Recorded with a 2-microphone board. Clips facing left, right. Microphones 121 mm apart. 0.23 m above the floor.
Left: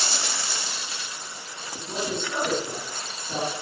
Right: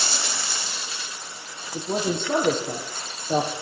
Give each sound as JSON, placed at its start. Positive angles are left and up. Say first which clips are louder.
{"t": 1.7, "sound": "a man speaking", "louder": "right 5 dB", "side_deg": -55, "distance_m": 8.0}